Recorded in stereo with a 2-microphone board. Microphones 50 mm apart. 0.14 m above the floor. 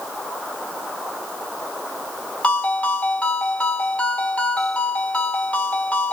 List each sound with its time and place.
2.4 s a ringtone: 25° left (ahead or behind), 2 m